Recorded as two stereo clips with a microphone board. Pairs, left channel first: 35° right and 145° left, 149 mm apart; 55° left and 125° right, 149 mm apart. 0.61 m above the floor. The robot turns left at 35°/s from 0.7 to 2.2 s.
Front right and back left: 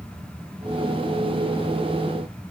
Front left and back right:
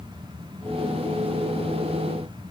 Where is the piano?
I don't hear a piano.